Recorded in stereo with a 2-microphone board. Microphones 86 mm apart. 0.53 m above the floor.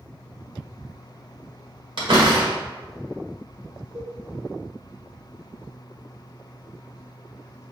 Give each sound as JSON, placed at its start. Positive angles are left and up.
{"t": 2.0, "sound": "a door slam", "side_deg": -65, "distance_m": 1.0}
{"t": 3.9, "sound": "a cowbell", "side_deg": -60, "distance_m": 1.2}